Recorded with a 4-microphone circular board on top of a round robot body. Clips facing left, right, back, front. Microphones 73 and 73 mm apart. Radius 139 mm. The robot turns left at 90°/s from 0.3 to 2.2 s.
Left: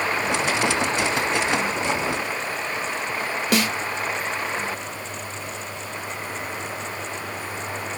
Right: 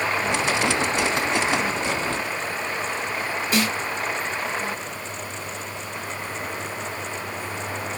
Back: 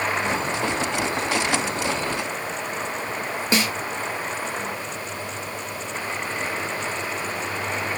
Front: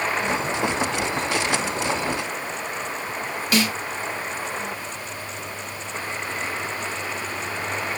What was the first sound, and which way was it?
A snare drum, 115° left.